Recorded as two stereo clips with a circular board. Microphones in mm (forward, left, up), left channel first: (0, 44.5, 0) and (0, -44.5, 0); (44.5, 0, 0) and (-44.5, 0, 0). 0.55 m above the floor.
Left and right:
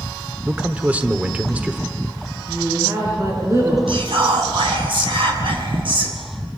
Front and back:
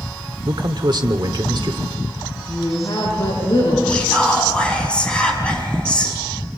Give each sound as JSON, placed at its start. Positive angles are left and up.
{"t": 0.5, "sound": "a man speaking", "azimuth_deg": -160, "distance_m": 1.3}
{"t": 2.5, "sound": "a woman speaking", "azimuth_deg": -35, "distance_m": 8.5}
{"t": 3.9, "sound": "whispering", "azimuth_deg": -75, "distance_m": 5.5}